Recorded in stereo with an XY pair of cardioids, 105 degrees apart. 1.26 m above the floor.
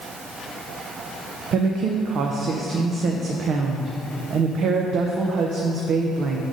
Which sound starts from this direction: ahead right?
A woman speaking, at 1.5 s.